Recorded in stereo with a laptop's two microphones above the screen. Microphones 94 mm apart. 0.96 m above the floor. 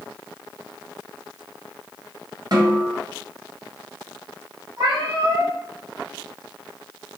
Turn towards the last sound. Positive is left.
turn(degrees=-55)  # may be behind; listen again after turning